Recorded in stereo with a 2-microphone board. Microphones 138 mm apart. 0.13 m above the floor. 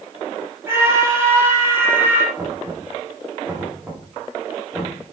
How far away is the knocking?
About 8 m.